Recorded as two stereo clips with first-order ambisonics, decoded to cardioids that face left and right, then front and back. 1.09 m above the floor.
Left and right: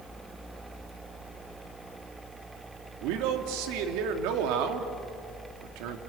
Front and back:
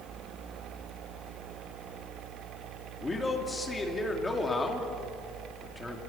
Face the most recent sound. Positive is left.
turn(degrees=-80)